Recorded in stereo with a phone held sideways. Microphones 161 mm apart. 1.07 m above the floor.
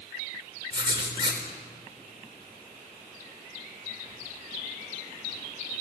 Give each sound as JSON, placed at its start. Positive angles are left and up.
{"t": 0.7, "sound": "writing", "side_deg": -30, "distance_m": 4.0}